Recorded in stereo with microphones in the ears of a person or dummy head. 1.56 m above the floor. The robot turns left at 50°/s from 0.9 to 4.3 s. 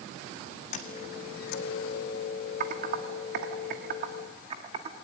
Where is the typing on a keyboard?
45° right (ahead or behind), 1.7 m; by 5.0 s 35° right (ahead or behind), 1.7 m.